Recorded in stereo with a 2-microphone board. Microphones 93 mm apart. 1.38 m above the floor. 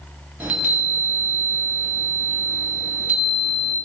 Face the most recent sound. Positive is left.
turn(degrees=-15)  # may be behind; listen again after turning